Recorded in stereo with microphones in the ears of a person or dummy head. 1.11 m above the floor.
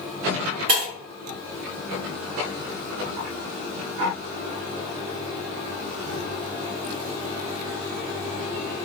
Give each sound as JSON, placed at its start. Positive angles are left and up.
{"t": 0.7, "sound": "breaking glass", "side_deg": -50, "distance_m": 1.6}